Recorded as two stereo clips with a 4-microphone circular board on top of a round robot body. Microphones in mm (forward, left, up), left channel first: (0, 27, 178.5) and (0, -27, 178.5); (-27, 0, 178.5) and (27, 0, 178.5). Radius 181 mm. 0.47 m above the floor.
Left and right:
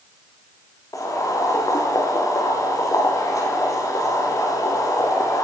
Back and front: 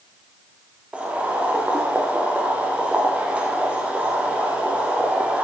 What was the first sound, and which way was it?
Boiling, 70° left.